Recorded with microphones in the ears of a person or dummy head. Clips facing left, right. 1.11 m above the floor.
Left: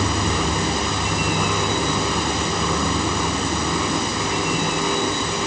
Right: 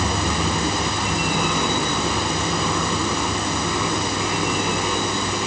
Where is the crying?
No crying in this recording.